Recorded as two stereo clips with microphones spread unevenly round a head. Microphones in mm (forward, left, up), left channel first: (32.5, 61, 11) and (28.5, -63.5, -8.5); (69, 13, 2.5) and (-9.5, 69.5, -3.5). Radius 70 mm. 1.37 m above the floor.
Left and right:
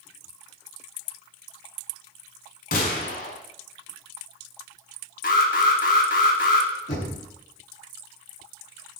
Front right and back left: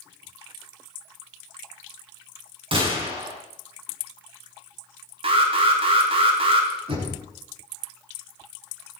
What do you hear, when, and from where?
2.7 s a gunshot: 115° left, 5 m
5.2 s an alarm: 120° left, 3 m
6.9 s knocking: 125° left, 10 m